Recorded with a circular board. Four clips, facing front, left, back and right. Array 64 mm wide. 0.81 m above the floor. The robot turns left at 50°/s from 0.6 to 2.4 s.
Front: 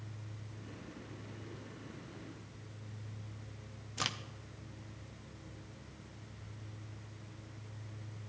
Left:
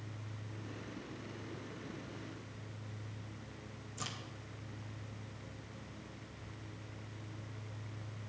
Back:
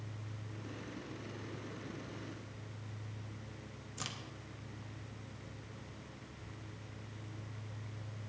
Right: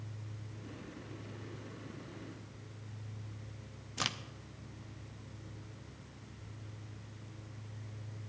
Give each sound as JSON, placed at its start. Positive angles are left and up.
{"t": 4.0, "sound": "a crack", "azimuth_deg": -55, "distance_m": 0.7}